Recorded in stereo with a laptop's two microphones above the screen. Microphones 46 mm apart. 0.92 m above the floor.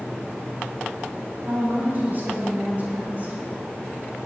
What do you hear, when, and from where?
1.5 s a woman speaking: 50° right (ahead or behind), 4.5 m; by 3.3 s 35° right (ahead or behind), 5.5 m